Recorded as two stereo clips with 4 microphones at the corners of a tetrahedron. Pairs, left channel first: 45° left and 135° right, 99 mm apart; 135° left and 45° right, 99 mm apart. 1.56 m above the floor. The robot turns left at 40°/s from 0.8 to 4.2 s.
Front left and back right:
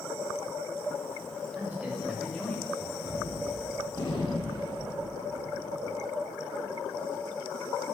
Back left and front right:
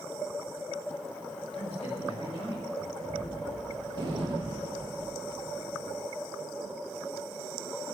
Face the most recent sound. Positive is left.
turn(degrees=-5)